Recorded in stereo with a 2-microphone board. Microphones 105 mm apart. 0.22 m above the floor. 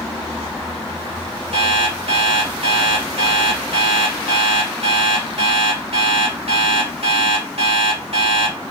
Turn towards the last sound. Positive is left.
turn(degrees=-75)  # may be behind; listen again after turning